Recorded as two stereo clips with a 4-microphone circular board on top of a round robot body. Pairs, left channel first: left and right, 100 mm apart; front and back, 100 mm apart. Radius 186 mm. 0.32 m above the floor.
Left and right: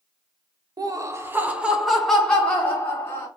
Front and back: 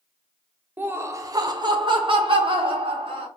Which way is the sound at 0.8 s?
115° right.